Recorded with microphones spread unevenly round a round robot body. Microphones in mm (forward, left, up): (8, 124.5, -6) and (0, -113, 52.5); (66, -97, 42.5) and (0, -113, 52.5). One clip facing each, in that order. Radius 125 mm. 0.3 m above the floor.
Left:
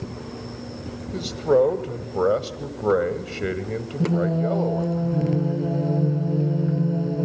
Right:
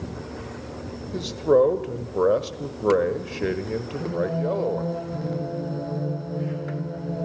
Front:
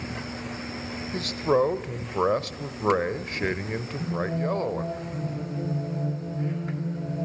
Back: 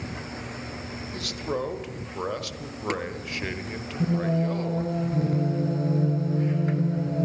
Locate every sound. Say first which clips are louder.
1.1 s a man speaking: even, front 8 dB; 10° left, 1.2 m
4.0 s singing: left 5 dB, back 4 dB; 135° left, 3 m